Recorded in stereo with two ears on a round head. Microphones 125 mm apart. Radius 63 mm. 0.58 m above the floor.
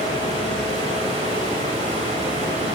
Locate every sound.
0.0 s running water: 45° right (ahead or behind), 2 m